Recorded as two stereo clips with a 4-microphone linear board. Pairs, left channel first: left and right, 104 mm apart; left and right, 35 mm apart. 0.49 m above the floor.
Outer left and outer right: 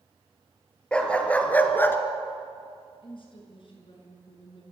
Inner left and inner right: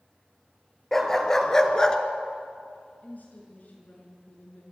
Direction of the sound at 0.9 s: 10° left (ahead or behind).